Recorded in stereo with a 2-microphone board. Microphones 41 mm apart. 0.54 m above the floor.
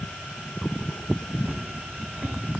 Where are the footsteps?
35° right (ahead or behind), 1.7 m.